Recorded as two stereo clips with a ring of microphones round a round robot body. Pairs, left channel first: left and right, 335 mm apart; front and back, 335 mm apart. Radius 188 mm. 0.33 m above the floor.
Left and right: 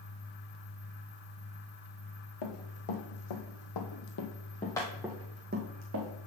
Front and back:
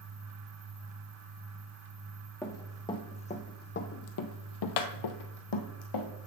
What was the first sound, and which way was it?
Running footsteps, 85° left.